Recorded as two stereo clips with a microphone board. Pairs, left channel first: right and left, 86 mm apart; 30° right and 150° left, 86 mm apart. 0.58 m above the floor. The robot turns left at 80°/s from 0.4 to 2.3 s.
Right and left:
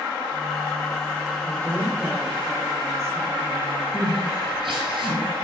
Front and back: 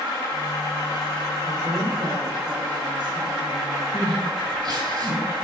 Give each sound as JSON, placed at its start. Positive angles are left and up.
{"t": 1.4, "sound": "a woman speaking", "azimuth_deg": -145, "distance_m": 2.0}
{"t": 3.9, "sound": "crying", "azimuth_deg": 115, "distance_m": 4.0}